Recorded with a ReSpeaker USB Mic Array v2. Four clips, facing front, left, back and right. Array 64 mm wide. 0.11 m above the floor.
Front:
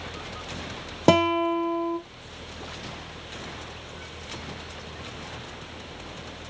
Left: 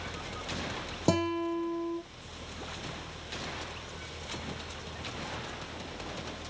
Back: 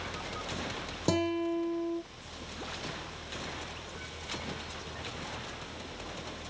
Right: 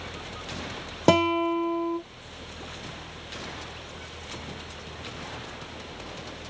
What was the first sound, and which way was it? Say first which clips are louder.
A guitar: right 8 dB, front 10 dB; 40° right.